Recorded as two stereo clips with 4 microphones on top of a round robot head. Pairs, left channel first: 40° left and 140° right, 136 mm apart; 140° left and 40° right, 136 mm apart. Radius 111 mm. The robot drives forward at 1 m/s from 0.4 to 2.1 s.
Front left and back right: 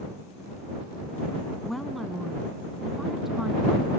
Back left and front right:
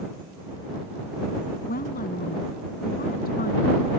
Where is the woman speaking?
130° left; by 3.9 s 135° left.